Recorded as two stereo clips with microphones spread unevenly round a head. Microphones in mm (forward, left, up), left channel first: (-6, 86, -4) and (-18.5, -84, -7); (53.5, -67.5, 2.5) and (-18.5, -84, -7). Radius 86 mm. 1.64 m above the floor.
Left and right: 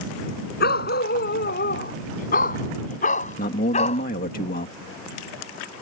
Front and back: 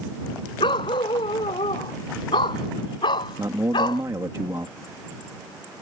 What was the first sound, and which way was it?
A dog barking, 50° left.